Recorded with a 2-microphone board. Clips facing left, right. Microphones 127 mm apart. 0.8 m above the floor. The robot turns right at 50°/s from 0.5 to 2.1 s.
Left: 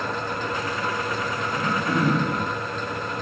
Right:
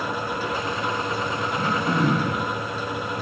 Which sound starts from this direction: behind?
Throat clearing, at 1.5 s.